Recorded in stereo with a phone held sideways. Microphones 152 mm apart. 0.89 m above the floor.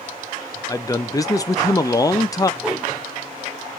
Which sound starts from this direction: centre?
A whoosh, at 2.6 s.